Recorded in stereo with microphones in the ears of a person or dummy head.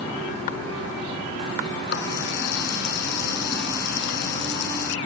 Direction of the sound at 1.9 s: 60° left (ahead or behind).